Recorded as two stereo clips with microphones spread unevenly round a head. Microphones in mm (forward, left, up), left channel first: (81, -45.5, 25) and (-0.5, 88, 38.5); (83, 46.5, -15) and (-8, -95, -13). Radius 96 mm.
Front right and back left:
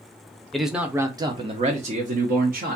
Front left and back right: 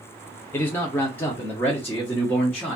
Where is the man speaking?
5° left, 0.7 m; by 2.8 s 140° left, 1.2 m.